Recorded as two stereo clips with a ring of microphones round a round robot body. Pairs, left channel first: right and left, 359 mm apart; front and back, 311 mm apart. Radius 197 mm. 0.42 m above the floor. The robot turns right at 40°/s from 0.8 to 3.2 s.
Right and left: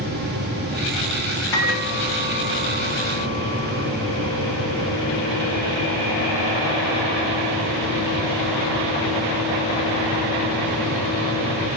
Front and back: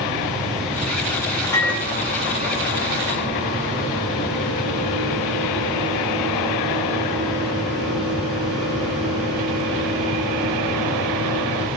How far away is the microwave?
About 6 m.